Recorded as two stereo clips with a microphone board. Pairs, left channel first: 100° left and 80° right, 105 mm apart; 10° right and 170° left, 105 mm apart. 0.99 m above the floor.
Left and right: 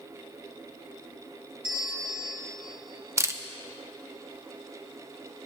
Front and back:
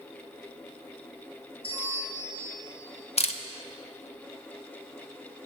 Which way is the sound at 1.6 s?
160° right.